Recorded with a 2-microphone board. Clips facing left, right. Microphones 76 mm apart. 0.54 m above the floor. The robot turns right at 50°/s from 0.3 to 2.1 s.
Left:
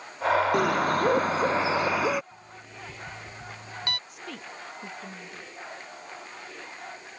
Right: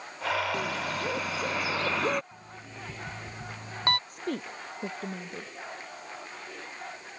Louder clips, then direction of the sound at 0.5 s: Left 8 dB; 95° left.